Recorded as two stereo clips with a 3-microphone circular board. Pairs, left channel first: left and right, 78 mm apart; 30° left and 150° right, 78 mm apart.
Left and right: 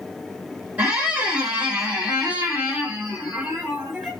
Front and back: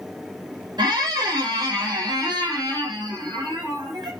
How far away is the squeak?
About 1.1 m.